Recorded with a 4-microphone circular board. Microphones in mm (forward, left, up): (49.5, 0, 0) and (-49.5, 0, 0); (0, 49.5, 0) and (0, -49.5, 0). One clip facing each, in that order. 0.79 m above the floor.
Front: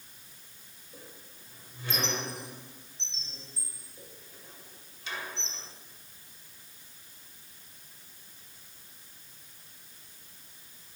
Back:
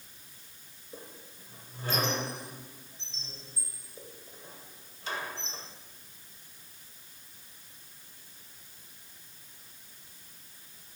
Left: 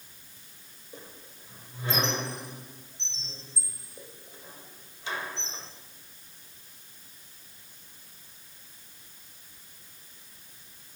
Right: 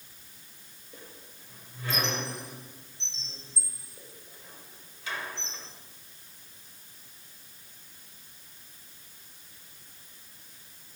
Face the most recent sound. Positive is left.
turn(degrees=150)